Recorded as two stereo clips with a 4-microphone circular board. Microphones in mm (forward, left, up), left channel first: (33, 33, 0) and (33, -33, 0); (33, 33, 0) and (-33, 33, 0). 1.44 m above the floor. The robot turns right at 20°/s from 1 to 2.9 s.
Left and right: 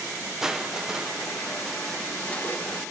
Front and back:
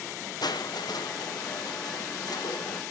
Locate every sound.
0.4 s crushing: 10° right, 0.9 m; by 2.8 s 30° left, 0.9 m